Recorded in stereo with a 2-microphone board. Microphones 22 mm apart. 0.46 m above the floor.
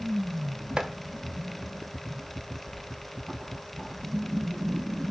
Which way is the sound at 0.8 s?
35° right (ahead or behind).